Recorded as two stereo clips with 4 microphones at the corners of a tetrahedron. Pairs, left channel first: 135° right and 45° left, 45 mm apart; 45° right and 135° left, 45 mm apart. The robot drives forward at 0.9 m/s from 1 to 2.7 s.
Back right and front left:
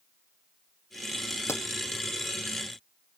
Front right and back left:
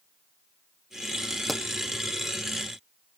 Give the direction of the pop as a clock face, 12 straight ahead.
4 o'clock.